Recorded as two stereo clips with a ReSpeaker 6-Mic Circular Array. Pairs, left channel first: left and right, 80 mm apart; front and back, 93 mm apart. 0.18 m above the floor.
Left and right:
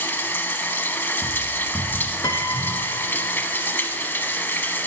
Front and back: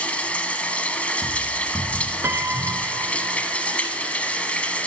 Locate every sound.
0.0 s running water: 60° left, 1.0 m
2.2 s a piano: 120° left, 0.6 m